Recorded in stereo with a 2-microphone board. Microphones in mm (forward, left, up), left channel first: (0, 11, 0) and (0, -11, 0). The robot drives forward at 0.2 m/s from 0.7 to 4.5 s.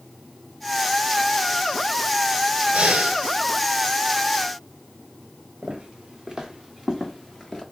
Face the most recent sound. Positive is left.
turn(degrees=15)  # may be behind; listen again after turning